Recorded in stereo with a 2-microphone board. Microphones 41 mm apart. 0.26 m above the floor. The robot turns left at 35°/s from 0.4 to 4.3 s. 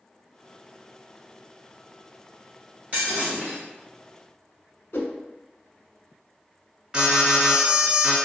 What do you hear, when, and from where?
2.9 s breaking glass: 40° right (ahead or behind), 1.7 m; by 3.6 s 20° right (ahead or behind), 1.7 m
4.9 s a whoosh: 70° left (ahead or behind), 0.5 m
6.9 s an alarm: 15° right (ahead or behind), 1.9 m